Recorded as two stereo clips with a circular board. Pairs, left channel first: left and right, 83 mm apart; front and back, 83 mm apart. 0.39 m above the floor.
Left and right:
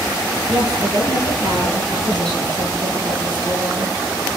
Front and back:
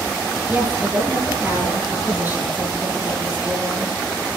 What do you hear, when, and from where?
0.5 s a woman speaking: 110° right, 7.5 m